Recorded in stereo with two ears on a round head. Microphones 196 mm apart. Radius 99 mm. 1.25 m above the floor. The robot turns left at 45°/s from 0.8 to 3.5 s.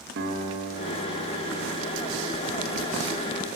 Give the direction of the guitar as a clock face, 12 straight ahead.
2 o'clock.